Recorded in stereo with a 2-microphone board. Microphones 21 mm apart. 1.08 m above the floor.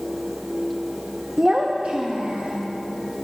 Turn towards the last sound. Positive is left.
turn(degrees=-90)